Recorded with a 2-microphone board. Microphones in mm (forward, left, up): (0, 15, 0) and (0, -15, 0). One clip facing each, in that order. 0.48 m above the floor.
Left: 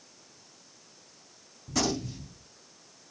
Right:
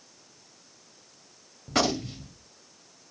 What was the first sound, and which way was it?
A gunshot, 60° right (ahead or behind).